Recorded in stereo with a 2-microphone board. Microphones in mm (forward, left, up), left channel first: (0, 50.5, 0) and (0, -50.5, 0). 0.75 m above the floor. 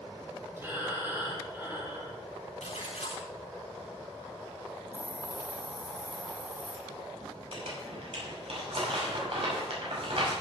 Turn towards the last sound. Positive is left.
turn(degrees=-65)  # may be behind; listen again after turning